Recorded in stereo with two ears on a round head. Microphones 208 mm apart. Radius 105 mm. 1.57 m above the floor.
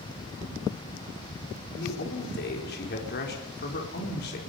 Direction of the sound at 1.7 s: 45° left (ahead or behind).